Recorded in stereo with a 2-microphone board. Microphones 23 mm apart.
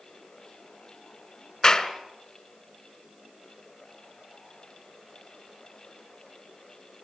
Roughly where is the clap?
Left.